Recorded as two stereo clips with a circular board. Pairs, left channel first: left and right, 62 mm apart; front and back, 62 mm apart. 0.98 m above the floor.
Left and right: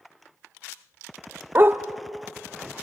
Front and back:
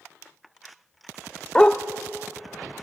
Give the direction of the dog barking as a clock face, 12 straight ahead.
2 o'clock.